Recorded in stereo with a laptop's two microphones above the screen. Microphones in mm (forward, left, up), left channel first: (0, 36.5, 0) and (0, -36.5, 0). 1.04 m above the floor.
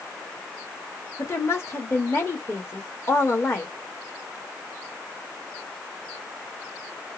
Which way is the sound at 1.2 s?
40° left (ahead or behind).